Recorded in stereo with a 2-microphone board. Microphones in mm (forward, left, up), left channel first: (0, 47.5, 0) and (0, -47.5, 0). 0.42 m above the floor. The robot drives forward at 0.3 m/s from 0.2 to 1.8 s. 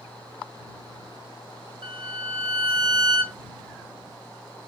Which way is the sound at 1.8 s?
55° right (ahead or behind).